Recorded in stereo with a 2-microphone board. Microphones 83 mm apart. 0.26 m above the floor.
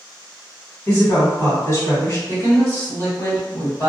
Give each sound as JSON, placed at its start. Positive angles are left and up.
{"t": 0.9, "sound": "a woman speaking", "side_deg": 40, "distance_m": 1.3}
{"t": 2.3, "sound": "a woman speaking", "side_deg": 35, "distance_m": 1.5}